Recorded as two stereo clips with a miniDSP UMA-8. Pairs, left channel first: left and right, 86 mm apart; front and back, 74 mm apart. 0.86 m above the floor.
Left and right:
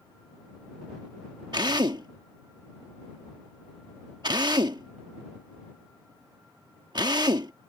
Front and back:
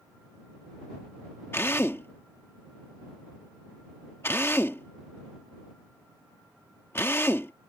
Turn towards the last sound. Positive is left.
turn(degrees=-60)